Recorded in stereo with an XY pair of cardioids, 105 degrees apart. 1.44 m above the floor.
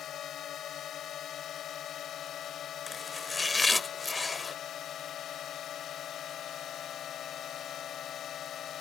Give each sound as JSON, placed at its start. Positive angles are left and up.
{"t": 0.0, "sound": "a drone", "azimuth_deg": 60}
{"t": 2.9, "sound": "chopping", "azimuth_deg": 20}